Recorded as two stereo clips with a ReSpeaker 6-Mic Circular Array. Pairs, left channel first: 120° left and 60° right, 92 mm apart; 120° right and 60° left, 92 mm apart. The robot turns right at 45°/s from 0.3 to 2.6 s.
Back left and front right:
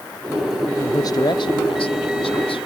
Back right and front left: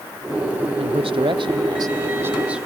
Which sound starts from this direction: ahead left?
A man speaking, at 0.8 s.